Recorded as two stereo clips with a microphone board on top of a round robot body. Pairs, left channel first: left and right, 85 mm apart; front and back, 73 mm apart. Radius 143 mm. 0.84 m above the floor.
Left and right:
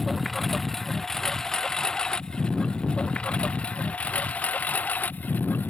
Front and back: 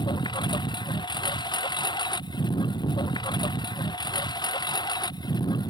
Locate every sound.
0.0 s a lawn mower: straight ahead; by 5.7 s 20° left